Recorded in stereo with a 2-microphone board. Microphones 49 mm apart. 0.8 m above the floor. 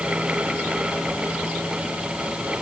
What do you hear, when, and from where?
Only background noise.